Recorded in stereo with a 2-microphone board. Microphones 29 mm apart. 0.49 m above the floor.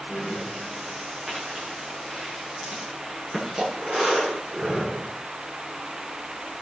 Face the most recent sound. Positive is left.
turn(degrees=-5)  # may be behind; listen again after turning